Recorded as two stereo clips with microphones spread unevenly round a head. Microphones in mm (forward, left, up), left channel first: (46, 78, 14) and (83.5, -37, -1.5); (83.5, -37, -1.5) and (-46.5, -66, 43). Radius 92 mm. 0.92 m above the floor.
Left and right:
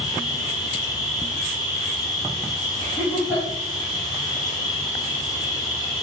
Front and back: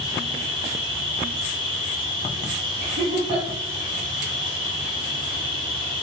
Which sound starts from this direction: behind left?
An insect, at 0.0 s.